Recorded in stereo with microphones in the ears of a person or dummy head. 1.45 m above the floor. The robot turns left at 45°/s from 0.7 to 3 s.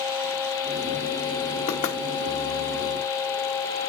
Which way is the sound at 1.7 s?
40° left (ahead or behind).